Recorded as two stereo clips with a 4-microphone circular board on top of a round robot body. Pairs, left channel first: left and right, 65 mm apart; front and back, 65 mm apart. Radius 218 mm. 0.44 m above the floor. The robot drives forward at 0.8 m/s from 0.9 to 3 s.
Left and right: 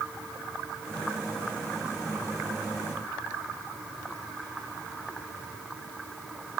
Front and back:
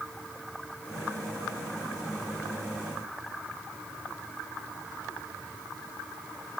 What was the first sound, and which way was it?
Only background noise.